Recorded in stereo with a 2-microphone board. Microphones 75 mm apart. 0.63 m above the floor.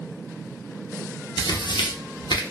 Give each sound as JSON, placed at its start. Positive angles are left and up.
{"t": 1.4, "sound": "tearing paper", "side_deg": 75, "distance_m": 0.5}